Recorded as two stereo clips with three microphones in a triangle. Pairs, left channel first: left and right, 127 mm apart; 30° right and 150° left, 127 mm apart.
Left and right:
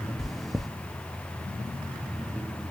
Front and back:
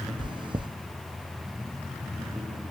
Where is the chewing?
Straight behind, 0.5 m.